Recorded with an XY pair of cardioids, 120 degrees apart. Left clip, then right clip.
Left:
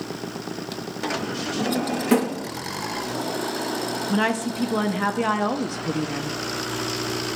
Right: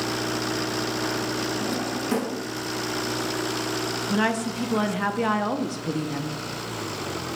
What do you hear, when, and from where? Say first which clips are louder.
1.6 s a drawer: left 2 dB; 50° left, 1.1 m
4.1 s a woman speaking: left 1 dB; 5° left, 0.7 m